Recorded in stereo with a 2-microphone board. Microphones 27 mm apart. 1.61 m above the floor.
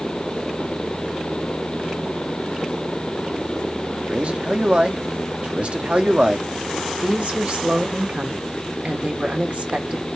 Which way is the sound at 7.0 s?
70° right (ahead or behind).